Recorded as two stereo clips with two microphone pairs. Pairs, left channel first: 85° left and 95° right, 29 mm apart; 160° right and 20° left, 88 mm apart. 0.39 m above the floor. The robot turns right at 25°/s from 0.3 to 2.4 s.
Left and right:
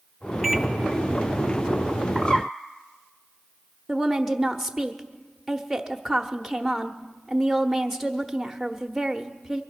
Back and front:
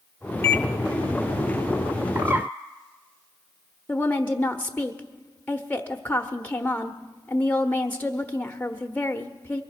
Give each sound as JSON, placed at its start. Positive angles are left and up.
{"t": 0.4, "sound": "a microwave", "azimuth_deg": -175, "distance_m": 0.7}
{"t": 2.1, "sound": "a bird", "azimuth_deg": 25, "distance_m": 1.1}
{"t": 3.9, "sound": "a woman speaking", "azimuth_deg": -170, "distance_m": 0.9}